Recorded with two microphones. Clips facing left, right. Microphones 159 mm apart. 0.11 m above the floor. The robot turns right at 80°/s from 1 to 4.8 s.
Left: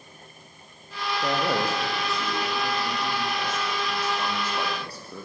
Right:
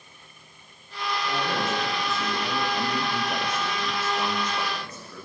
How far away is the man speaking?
About 5.5 m.